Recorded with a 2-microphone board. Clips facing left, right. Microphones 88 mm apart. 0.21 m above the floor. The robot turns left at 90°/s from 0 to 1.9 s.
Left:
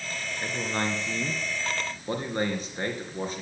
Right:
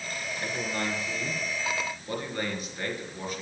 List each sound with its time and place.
0.4 s a man speaking: 165° left, 3.5 m; by 3.4 s 30° left, 3.5 m